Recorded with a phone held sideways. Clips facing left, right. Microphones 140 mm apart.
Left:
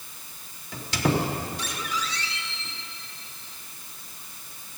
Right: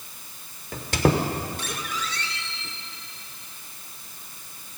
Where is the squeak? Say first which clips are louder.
Right 3 dB; 55° right (ahead or behind), 1.2 m.